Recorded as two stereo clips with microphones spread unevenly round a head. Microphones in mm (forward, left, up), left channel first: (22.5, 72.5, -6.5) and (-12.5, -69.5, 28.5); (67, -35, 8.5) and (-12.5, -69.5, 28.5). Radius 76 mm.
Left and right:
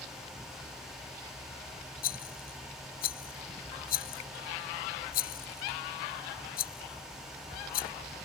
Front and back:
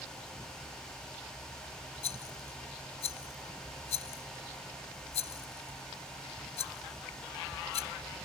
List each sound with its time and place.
2.0 s a rattle: 45° left